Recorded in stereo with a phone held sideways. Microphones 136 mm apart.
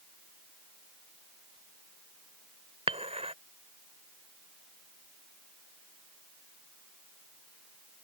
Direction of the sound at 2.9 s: 50° right (ahead or behind).